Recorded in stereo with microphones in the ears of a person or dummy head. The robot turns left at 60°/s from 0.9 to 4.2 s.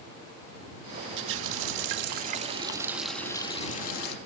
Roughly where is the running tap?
Right.